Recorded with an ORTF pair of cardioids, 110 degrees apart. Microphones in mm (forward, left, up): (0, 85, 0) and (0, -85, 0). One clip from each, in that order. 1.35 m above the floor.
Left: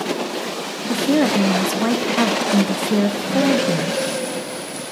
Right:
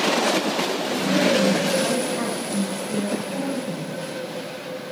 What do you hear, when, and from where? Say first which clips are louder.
0.9 s a woman speaking: left 4 dB; 55° left, 0.7 m